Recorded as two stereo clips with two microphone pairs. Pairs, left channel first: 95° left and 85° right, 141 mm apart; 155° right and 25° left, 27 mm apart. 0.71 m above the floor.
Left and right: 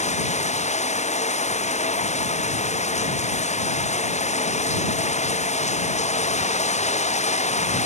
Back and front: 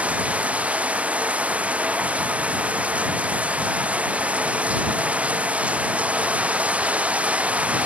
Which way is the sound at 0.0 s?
55° left.